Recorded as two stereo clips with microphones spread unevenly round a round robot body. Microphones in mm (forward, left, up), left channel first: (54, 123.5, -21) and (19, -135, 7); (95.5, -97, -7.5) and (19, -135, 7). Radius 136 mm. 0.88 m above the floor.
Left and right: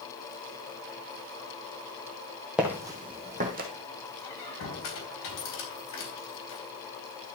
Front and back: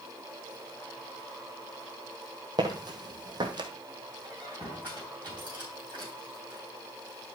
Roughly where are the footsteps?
Behind.